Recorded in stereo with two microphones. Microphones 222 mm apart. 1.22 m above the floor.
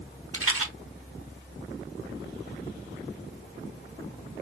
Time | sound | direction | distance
0.3 | a rattle | 80° right | 1.1 m